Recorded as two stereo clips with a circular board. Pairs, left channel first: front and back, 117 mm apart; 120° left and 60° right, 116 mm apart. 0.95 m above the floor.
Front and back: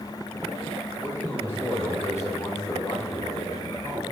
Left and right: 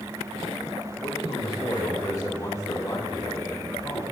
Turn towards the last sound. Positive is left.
turn(degrees=50)